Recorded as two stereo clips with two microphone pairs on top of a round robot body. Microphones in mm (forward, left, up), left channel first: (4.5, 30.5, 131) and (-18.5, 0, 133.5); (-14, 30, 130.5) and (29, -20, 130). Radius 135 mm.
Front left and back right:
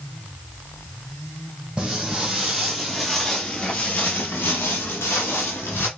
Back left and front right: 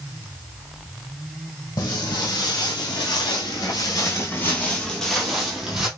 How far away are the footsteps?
About 1.4 m.